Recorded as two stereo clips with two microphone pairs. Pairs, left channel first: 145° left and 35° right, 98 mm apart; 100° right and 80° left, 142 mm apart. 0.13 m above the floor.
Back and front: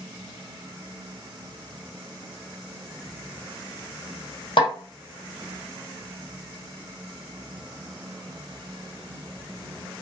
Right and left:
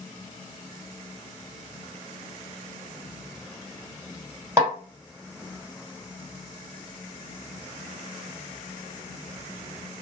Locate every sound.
4.6 s a snare drum: 150° left, 1.5 m